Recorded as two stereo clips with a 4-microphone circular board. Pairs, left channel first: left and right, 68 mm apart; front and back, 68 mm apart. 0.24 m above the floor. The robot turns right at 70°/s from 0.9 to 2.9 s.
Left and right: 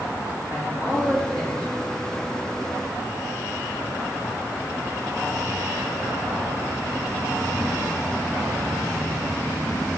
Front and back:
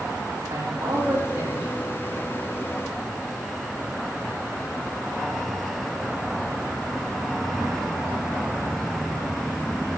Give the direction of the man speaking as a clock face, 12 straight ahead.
5 o'clock.